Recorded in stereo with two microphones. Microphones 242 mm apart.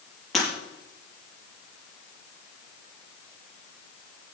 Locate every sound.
0.3 s breaking glass: centre (ahead or behind), 6 m